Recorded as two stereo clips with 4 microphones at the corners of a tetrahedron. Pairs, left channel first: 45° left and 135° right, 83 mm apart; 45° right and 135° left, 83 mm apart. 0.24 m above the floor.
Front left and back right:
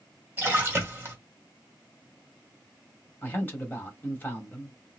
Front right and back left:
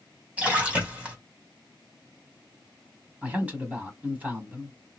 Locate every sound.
0.4 s a splash: 170° right, 1.6 m
3.2 s a man speaking: 85° left, 1.3 m